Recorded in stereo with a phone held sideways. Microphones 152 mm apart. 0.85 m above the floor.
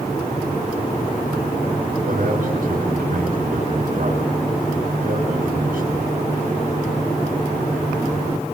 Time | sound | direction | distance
2.0 | a man speaking | 70° right (ahead or behind) | 6.5 m